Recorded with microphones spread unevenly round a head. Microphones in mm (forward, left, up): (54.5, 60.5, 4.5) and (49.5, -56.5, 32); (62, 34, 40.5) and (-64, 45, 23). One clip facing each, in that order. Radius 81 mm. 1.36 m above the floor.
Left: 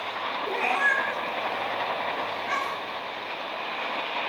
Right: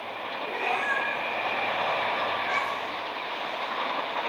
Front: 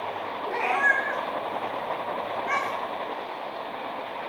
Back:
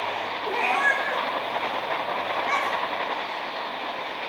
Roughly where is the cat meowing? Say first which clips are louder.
Left 2 dB, back 1 dB; left.